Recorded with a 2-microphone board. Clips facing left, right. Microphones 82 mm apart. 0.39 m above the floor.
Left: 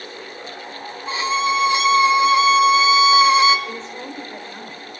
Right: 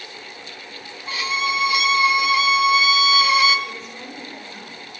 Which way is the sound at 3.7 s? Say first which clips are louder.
Left 4 dB; 30° left (ahead or behind).